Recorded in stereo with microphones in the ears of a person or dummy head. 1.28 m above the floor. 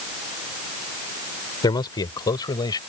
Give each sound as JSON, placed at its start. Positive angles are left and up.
{"t": 1.6, "sound": "a man speaking", "side_deg": 20}